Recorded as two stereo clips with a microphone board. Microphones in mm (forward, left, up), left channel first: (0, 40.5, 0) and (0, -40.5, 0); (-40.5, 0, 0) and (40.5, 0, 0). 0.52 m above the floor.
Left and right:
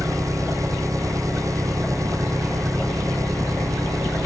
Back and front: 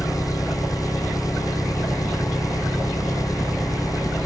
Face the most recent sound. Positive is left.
turn(degrees=-135)